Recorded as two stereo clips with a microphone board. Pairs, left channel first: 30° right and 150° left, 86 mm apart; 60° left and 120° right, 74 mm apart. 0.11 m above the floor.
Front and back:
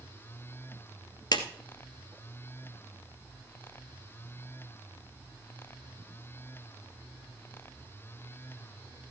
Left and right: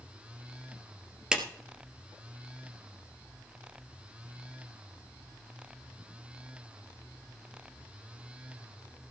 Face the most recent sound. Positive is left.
turn(degrees=-40)